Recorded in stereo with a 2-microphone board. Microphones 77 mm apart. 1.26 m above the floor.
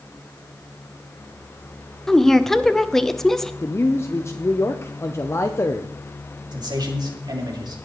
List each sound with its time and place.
2.1 s a woman speaking: 5° left (ahead or behind), 0.8 m
3.6 s a man speaking: 35° left (ahead or behind), 0.7 m
6.5 s a man speaking: 60° right (ahead or behind), 3 m